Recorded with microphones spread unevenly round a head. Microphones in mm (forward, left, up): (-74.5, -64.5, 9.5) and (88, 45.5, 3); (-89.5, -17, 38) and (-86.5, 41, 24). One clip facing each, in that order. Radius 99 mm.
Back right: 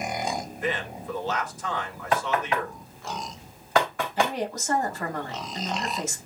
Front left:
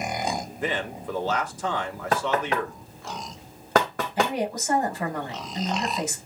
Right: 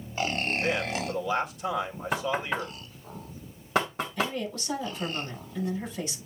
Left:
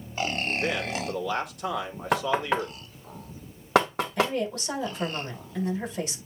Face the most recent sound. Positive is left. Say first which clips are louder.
# front left 2 dB, left 5 dB
turn(degrees=110)